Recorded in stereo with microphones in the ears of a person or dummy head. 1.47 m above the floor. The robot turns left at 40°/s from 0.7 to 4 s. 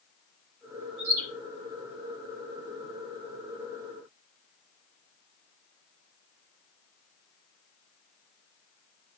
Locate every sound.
1.0 s a bird: 65° right (ahead or behind), 3 m; by 1.2 s 55° right (ahead or behind), 3 m